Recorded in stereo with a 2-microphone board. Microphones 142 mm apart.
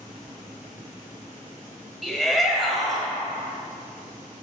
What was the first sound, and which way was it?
A shout, centre (ahead or behind).